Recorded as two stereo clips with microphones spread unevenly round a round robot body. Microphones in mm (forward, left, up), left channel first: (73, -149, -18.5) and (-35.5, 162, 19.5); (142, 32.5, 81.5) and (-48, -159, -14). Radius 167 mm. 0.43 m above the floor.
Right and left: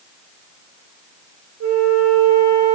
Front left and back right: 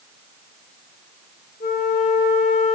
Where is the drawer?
No drawer in this recording.